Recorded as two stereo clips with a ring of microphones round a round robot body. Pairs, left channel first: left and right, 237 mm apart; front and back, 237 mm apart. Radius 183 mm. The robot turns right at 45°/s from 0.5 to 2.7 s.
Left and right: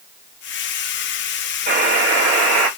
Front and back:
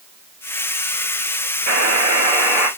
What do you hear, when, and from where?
1.7 s a buzzer: 140° right, 1.9 m; by 2.7 s 95° right, 1.9 m